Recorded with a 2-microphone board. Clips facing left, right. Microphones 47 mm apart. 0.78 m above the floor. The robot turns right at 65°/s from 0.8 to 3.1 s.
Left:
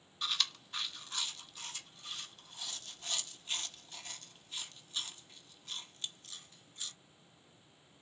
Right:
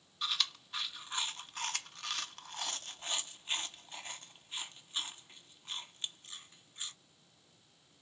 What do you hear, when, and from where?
0.2 s chewing: 5° right (ahead or behind), 0.6 m; by 6.9 s 25° right (ahead or behind), 0.6 m